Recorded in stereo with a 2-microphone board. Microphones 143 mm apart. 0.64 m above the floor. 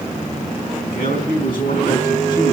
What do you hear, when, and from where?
0.8 s a man speaking: 85° left, 4.5 m